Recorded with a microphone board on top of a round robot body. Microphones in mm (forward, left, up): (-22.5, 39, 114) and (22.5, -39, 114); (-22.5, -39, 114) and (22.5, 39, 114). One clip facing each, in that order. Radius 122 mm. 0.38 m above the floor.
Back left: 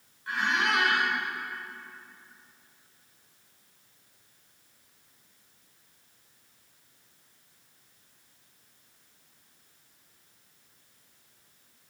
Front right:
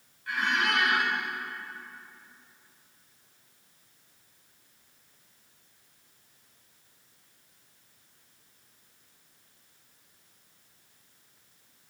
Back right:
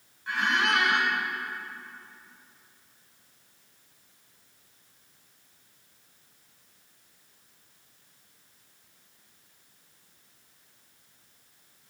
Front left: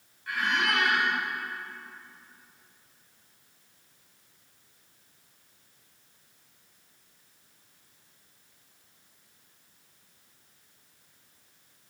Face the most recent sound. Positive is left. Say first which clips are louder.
# back left 1 dB, back right 2 dB
turn(degrees=180)